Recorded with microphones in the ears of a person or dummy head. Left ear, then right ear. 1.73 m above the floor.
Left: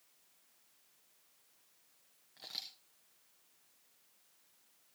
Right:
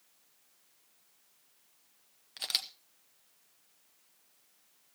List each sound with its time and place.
2.4 s a camera shutter: 35° right (ahead or behind), 0.8 m